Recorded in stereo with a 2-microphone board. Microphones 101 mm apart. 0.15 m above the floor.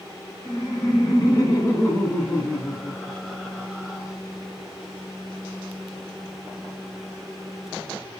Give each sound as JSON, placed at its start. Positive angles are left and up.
{"t": 0.5, "sound": "laughter", "side_deg": 45, "distance_m": 2.5}